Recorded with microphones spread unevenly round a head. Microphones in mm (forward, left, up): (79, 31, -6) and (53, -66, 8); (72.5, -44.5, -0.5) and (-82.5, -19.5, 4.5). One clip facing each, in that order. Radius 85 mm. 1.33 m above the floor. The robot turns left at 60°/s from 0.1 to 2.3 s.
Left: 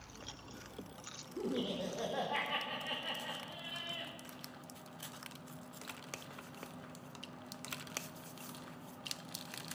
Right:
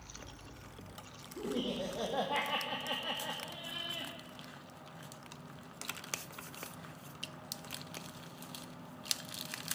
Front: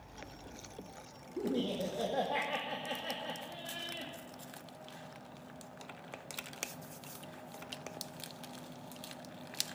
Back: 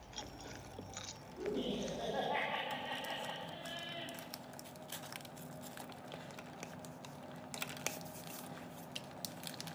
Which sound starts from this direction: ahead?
Laughter, at 1.4 s.